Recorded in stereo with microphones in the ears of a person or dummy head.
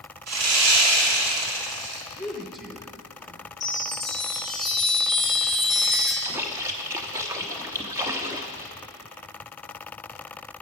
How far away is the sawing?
About 2 m.